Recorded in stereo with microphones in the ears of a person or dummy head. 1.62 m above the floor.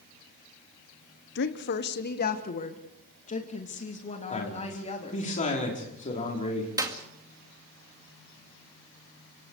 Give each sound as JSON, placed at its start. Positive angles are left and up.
{"t": 1.4, "sound": "a woman speaking", "side_deg": 60, "distance_m": 1.0}
{"t": 4.3, "sound": "a man speaking", "side_deg": 35, "distance_m": 4.5}
{"t": 6.8, "sound": "a clap", "side_deg": -20, "distance_m": 2.0}